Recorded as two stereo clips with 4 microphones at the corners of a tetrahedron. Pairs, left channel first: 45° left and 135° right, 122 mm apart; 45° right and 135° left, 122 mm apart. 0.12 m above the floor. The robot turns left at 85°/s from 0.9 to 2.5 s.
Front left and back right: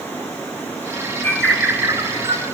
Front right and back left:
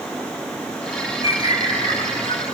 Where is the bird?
25° right, 2 m; by 2.4 s 125° right, 2 m.